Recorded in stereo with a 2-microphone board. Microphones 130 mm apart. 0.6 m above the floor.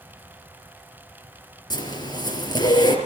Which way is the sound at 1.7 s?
35° left (ahead or behind).